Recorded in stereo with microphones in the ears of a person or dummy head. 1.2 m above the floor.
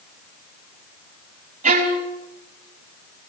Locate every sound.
1.6 s a violin: 35° right (ahead or behind), 3.5 m